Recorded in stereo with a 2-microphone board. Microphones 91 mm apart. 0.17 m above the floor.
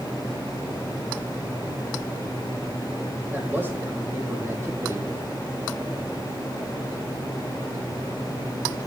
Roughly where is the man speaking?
Right.